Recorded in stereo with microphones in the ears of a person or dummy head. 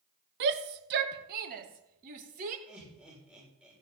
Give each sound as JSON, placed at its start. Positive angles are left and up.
{"t": 0.4, "sound": "a shout", "side_deg": -60, "distance_m": 1.5}
{"t": 2.7, "sound": "laughter", "side_deg": -10, "distance_m": 6.5}